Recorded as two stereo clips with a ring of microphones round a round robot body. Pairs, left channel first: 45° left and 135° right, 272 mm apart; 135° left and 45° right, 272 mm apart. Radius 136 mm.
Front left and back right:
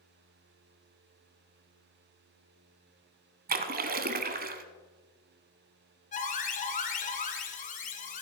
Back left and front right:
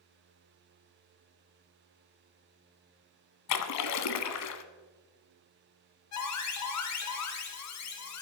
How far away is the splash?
About 1.0 m.